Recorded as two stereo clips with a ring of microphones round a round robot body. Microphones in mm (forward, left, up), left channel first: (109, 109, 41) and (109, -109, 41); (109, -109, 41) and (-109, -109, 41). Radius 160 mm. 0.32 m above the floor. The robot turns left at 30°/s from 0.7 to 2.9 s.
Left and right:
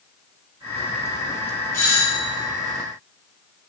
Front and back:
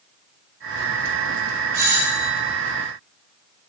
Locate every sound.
1.7 s a doorbell: 160° left, 1.6 m; by 2.4 s 140° left, 1.6 m